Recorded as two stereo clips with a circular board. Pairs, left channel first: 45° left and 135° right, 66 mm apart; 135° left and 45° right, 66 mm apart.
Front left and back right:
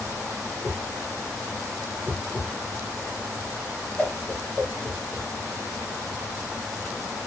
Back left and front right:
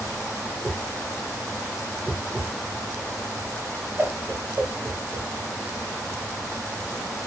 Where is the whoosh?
20° right, 0.9 m.